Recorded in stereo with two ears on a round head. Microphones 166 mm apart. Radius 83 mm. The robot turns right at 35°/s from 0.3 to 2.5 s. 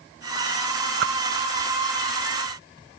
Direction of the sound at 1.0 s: 55° right (ahead or behind).